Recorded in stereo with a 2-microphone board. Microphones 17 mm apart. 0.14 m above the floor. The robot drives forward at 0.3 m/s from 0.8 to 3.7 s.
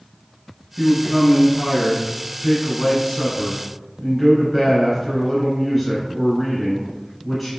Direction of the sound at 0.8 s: Centre (ahead or behind).